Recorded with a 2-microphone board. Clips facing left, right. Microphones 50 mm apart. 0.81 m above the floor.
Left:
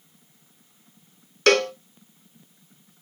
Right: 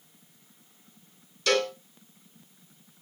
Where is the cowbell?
60° left (ahead or behind), 1.4 m.